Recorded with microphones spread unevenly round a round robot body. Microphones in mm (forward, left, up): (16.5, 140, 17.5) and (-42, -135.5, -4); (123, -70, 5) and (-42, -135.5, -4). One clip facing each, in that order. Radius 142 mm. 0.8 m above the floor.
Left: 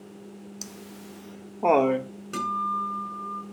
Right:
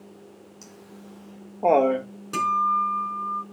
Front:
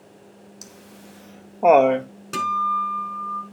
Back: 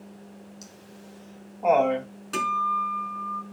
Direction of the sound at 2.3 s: 20° right.